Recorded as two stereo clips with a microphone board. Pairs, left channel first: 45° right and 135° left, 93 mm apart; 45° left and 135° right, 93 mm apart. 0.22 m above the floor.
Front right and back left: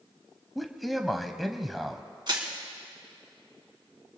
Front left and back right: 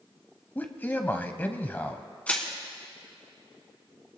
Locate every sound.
0.6 s a man speaking: 45° left, 1.0 m
2.3 s crushing: 120° left, 1.9 m